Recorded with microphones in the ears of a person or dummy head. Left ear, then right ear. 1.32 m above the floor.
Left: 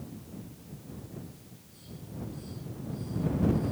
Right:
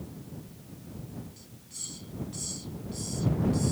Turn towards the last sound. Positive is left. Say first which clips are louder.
# right 11 dB
turn(degrees=-55)  # may be behind; listen again after turning